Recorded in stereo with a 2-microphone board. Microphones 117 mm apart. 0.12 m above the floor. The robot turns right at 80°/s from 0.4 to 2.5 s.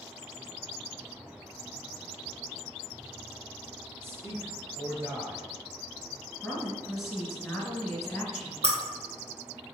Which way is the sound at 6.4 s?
Centre (ahead or behind).